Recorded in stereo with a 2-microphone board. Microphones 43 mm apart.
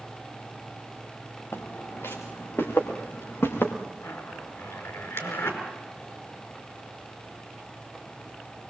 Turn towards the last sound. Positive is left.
turn(degrees=65)  # may be behind; listen again after turning